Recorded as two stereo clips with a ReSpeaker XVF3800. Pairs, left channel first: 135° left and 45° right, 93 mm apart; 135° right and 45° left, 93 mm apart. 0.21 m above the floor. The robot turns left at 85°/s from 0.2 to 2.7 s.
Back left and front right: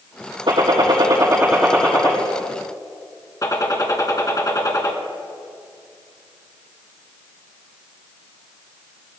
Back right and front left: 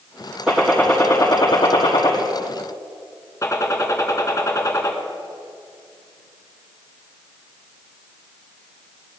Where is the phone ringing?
No phone ringing in this recording.